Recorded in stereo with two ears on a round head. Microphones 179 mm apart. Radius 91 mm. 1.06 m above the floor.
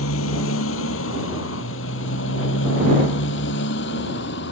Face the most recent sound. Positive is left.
turn(degrees=55)  # may be behind; listen again after turning